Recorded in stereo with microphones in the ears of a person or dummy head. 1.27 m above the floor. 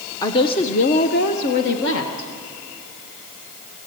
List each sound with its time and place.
0.2 s a woman speaking: 20° left (ahead or behind), 0.8 m; by 2.3 s 70° left (ahead or behind), 1.6 m